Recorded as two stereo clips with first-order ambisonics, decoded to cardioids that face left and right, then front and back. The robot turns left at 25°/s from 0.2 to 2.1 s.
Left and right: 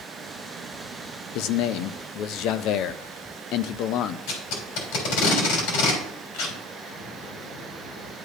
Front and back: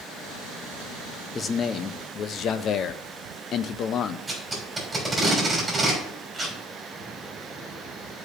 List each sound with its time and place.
1.4 s a man speaking: 70° left, 0.5 m; by 4.2 s 55° left, 0.5 m
4.3 s tape being pulled: 95° left, 3.5 m
6.9 s a bird: 95° left, 4 m